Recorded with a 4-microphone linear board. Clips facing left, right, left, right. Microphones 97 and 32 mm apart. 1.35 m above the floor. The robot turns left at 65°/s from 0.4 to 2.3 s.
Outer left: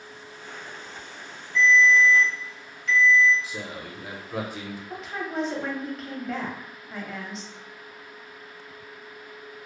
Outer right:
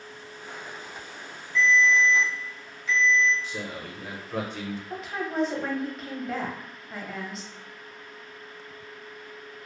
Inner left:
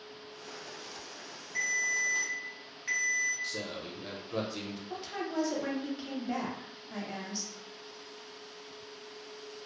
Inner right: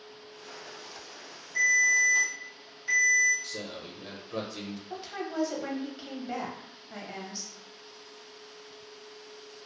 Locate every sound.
1.6 s a ringtone: 165° left, 1.6 m; by 3.3 s 115° left, 1.6 m
3.4 s a man speaking: 5° left (ahead or behind), 0.6 m
4.9 s a woman speaking: centre (ahead or behind), 0.6 m